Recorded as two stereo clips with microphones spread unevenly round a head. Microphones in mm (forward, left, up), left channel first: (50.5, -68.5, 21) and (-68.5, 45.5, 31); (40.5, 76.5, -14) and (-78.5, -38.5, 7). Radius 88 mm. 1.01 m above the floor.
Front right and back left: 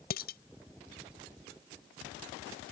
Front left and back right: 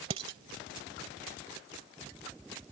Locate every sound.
0.1 s dishes clattering: 75° right